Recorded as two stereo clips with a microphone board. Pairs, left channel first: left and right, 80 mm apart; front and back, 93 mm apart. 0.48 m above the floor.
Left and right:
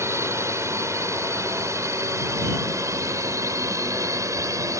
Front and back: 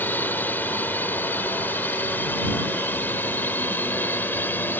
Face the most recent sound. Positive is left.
turn(degrees=-60)